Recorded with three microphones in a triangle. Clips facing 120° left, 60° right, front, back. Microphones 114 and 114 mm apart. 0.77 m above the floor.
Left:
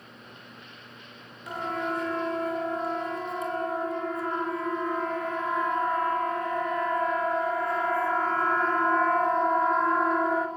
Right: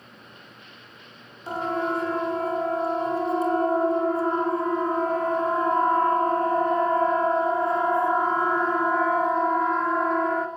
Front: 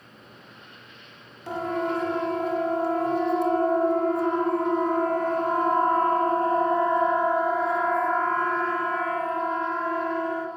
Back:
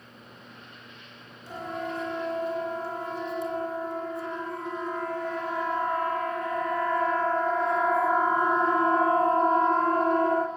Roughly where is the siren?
Ahead.